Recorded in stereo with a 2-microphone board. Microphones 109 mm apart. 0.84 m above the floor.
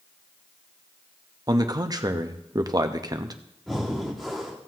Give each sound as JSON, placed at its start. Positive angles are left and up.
{"t": 1.5, "sound": "a man speaking", "side_deg": -35, "distance_m": 0.7}
{"t": 3.7, "sound": "breathing", "side_deg": 0, "distance_m": 1.6}